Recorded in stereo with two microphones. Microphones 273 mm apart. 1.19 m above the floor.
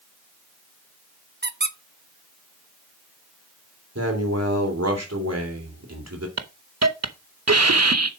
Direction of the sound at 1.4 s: 35° right (ahead or behind).